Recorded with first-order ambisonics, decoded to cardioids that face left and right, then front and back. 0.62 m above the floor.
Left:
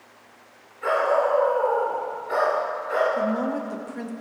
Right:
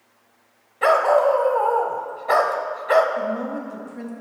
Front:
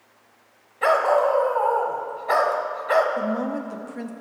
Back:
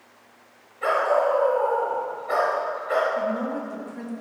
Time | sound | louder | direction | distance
0.8 | a dog barking | right 5 dB, front 2 dB | 65° right | 0.9 m
3.2 | a woman speaking | left 1 dB, even | 45° left | 0.5 m